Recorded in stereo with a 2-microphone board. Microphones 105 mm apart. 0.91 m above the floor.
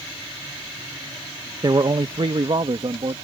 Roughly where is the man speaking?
Right.